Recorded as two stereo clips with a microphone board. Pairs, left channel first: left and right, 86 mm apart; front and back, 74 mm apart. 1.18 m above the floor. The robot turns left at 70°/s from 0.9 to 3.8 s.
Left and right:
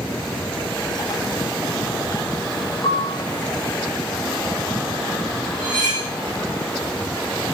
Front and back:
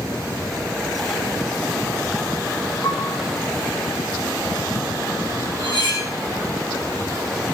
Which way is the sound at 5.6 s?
35° left.